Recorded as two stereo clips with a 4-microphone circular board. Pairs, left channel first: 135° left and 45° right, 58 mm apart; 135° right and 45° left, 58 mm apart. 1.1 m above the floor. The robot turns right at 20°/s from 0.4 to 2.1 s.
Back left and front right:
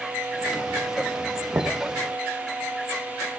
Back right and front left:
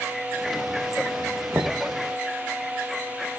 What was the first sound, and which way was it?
Knocking, 5° right.